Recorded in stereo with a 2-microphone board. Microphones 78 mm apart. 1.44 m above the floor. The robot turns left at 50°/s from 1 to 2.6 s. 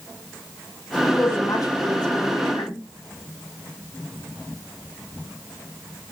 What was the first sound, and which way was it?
A woman speaking, 155° left.